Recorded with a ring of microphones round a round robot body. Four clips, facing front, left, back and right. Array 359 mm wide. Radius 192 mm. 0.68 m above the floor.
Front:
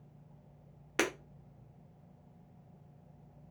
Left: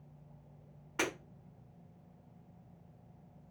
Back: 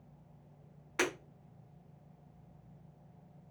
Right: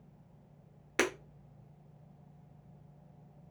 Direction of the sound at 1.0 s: 50° right.